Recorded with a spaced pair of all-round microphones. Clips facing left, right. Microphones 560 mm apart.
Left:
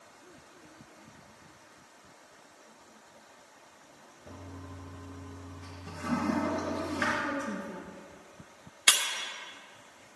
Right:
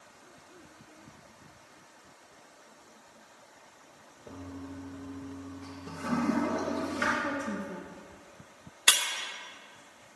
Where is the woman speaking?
Centre (ahead or behind), 1.4 m.